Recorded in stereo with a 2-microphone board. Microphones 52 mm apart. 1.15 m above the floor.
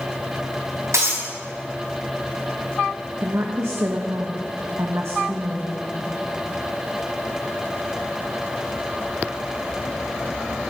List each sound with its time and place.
0.9 s breaking glass: 75° right (ahead or behind), 4.5 m
3.2 s a woman speaking: 60° right (ahead or behind), 1.4 m